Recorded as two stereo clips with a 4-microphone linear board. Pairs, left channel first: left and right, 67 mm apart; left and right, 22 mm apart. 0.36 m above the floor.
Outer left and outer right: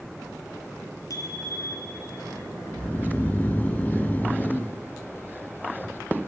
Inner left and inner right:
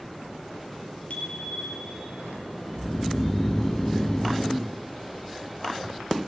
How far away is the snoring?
About 0.8 m.